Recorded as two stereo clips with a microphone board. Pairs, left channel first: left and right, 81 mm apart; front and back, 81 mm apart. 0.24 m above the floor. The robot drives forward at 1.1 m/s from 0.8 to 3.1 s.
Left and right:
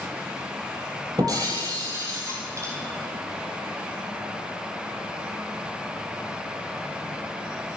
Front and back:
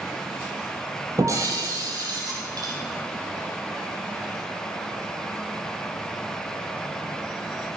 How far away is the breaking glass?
About 4.5 m.